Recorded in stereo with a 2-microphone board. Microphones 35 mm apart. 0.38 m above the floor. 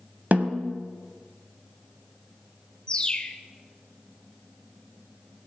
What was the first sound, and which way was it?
A snare drum, 50° right (ahead or behind).